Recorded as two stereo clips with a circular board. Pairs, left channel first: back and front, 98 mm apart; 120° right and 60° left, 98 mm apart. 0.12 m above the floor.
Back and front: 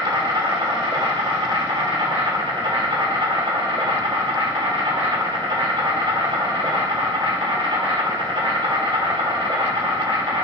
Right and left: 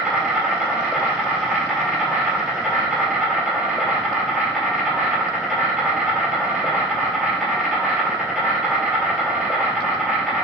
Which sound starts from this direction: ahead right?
An insect, at 0.0 s.